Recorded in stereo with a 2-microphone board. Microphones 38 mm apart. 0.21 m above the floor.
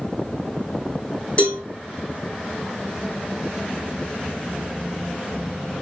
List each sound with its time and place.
1.4 s a cowbell: 35° left (ahead or behind), 4.5 m